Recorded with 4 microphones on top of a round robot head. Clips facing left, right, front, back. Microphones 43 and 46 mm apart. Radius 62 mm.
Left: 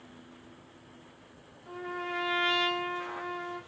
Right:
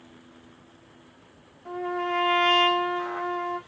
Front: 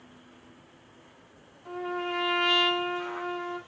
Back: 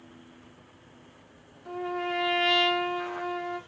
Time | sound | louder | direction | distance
1.6 | a trumpet | right 8 dB, back 1 dB | 95° right | 1.3 m